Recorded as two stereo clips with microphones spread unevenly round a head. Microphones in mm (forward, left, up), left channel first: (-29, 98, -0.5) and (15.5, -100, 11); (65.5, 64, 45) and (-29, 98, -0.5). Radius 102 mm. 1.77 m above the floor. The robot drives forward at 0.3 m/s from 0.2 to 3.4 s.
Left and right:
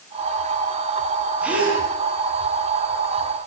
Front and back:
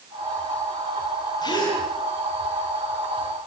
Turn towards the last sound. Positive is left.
turn(degrees=5)